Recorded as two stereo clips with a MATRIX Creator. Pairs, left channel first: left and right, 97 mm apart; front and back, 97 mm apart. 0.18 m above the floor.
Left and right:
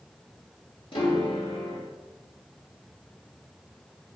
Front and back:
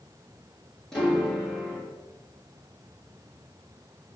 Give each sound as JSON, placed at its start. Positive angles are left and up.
{"t": 0.9, "sound": "a piano", "azimuth_deg": 85, "distance_m": 3.5}